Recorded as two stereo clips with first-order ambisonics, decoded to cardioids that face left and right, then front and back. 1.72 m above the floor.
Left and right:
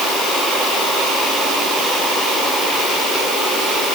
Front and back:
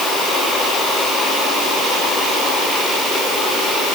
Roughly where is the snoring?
No snoring in this recording.